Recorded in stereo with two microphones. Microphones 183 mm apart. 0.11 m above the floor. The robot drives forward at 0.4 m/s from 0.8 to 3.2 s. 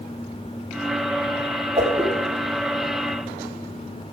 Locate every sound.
1.8 s a whoosh: 30° right (ahead or behind), 4 m